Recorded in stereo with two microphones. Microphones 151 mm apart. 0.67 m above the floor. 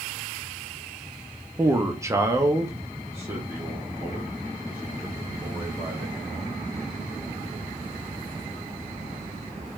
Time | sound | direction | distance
1.6 | a man speaking | 15° right (ahead or behind) | 0.7 m